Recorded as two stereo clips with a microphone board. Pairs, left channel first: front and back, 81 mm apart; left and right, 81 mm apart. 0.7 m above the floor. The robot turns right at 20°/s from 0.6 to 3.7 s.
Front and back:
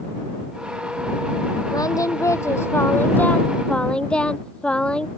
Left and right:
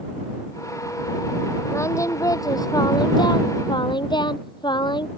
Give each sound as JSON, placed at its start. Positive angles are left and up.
{"t": 1.7, "sound": "singing", "azimuth_deg": 35}